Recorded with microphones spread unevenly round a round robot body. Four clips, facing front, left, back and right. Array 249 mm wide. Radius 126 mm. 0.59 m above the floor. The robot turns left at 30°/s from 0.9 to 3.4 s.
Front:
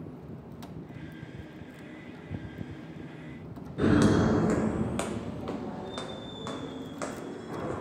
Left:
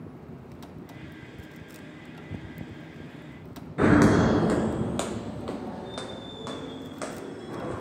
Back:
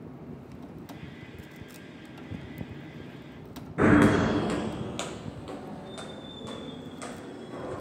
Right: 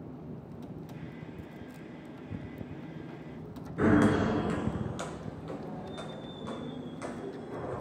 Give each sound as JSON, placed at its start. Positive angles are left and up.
{"t": 3.8, "sound": "footsteps", "azimuth_deg": 150, "distance_m": 0.5}